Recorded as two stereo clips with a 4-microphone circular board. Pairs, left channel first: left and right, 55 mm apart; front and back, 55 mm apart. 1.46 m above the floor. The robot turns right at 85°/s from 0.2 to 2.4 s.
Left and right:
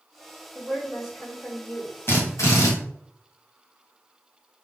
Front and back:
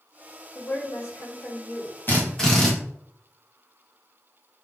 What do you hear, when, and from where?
0.6 s a woman speaking: 45° right, 2 m; by 1.9 s 70° left, 2 m
2.1 s a drill: 50° left, 1.4 m; by 2.7 s 80° left, 1.4 m